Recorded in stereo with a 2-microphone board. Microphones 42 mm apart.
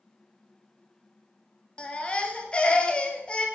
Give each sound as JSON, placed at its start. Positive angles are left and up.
{"t": 1.8, "sound": "a baby crying", "side_deg": 30, "distance_m": 1.5}